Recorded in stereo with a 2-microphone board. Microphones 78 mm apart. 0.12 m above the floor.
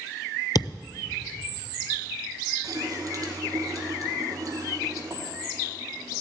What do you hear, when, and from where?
0.6 s a thud: 65° left (ahead or behind), 0.6 m
2.6 s a running tap: 50° right (ahead or behind), 2.5 m